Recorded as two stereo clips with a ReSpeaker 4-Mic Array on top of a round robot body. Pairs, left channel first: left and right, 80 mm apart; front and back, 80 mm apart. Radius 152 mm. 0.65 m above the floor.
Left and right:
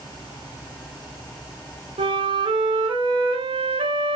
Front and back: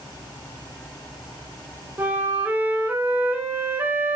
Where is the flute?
110° right, 0.5 m.